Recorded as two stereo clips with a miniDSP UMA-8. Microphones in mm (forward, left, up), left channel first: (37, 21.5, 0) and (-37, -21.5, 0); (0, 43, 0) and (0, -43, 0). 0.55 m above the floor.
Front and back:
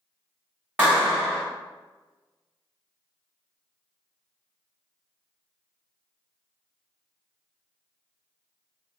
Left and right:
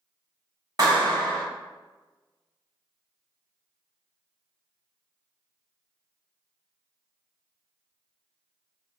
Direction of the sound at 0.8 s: 80° right.